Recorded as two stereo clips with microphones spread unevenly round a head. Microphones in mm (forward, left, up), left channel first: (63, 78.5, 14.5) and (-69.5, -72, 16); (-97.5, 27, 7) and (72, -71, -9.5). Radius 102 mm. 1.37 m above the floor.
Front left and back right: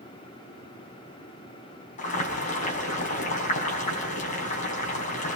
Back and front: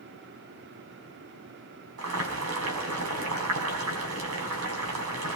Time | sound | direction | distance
2.0 | boiling | 5° right | 6 m